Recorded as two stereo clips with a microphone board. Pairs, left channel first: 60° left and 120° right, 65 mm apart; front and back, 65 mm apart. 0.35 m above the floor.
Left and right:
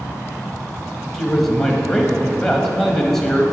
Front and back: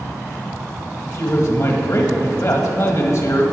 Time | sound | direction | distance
1.1 | a man speaking | 20° right | 1.8 m